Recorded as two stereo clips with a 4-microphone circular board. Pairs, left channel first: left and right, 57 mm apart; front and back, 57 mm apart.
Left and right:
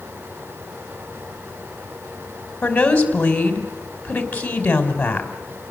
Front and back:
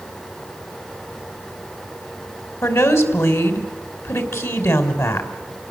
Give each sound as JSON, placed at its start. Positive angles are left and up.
{"t": 2.6, "sound": "a woman speaking", "azimuth_deg": 25, "distance_m": 3.0}